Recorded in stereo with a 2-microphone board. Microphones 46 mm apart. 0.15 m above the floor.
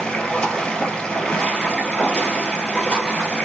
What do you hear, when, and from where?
0.0 s running water: 20° left (ahead or behind), 1.5 m